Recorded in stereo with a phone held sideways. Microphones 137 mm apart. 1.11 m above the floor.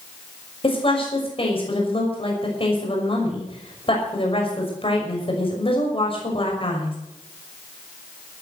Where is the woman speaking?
40° left (ahead or behind), 6 m.